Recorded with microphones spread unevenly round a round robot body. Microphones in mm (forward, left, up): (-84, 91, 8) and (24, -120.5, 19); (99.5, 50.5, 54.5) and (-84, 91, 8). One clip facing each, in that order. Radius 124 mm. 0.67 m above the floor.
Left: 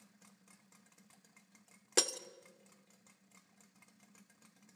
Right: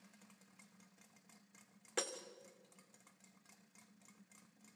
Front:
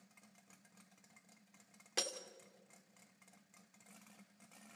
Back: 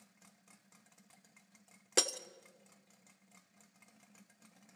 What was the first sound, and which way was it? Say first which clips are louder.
Breaking glass: left 7 dB, back 8 dB; 145° left.